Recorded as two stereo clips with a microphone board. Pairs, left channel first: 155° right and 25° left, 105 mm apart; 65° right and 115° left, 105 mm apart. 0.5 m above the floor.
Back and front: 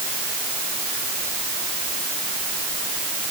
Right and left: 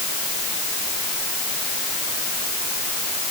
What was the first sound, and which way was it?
Only background noise.